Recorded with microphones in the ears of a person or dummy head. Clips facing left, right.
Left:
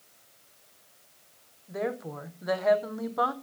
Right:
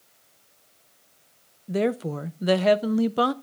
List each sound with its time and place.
1.7 s a woman speaking: 35° right (ahead or behind), 0.7 m